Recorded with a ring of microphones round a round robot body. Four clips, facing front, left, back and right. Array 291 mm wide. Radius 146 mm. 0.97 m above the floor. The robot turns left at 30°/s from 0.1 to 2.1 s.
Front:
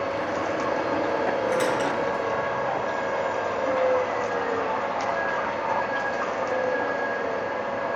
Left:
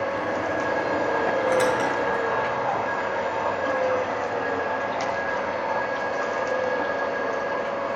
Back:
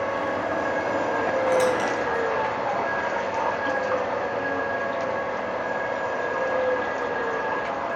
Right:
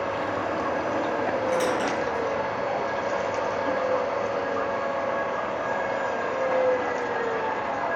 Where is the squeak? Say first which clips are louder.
Left 3 dB, back 2 dB; 110° left, 4.5 m; by 2.8 s 95° left, 4.5 m.